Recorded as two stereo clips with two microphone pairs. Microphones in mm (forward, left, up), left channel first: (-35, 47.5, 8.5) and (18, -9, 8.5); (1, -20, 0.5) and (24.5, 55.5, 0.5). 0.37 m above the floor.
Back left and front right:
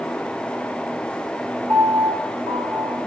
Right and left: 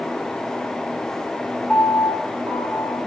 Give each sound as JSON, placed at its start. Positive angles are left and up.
{"t": 1.7, "sound": "a piano", "azimuth_deg": -35, "distance_m": 1.9}